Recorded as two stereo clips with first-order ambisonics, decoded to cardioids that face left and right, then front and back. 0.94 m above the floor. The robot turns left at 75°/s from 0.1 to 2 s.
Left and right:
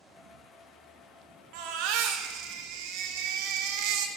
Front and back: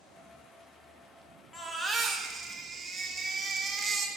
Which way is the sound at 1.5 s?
75° right.